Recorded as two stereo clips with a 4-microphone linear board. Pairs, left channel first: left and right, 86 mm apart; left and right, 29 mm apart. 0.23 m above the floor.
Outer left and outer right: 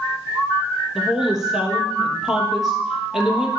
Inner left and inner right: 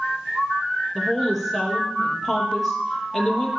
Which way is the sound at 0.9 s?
5° right (ahead or behind).